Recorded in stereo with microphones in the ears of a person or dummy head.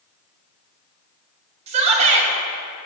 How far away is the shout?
About 1.6 m.